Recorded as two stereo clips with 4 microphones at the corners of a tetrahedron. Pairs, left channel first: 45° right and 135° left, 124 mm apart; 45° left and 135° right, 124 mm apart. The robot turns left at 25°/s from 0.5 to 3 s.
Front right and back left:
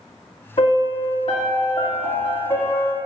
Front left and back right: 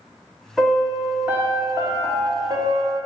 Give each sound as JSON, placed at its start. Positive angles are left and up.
{"t": 0.6, "sound": "a piano", "azimuth_deg": -45, "distance_m": 1.7}